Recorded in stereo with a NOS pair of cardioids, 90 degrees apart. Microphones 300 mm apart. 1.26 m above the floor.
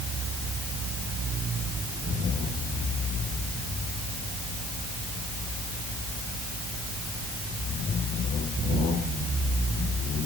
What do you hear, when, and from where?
Only background noise.